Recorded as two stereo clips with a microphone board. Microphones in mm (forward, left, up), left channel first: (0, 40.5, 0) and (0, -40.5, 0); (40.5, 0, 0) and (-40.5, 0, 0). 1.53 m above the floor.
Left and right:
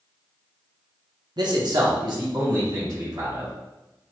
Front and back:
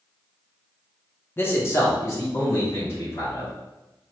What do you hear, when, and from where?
1.4 s a man speaking: 65° right, 0.7 m; by 3.5 s 55° right, 2 m